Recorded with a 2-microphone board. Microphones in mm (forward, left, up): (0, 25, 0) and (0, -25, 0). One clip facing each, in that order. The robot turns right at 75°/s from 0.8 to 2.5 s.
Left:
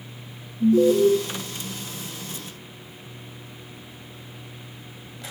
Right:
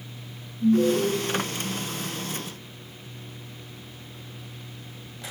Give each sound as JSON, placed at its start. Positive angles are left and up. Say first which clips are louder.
{"t": 0.6, "sound": "an alarm", "louder": "left 4 dB", "side_deg": 75, "distance_m": 6.0}